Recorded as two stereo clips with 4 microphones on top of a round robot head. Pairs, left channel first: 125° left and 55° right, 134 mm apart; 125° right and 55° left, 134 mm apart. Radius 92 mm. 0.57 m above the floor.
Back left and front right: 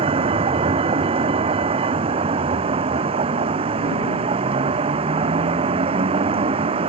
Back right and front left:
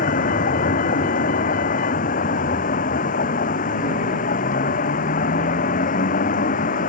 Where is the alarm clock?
No alarm clock in this recording.